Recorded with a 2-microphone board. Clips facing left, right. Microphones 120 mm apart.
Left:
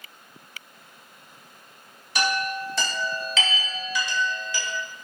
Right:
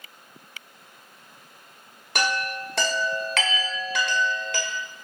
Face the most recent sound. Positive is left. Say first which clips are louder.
# left 1 dB
turn(degrees=-65)  # may be behind; listen again after turning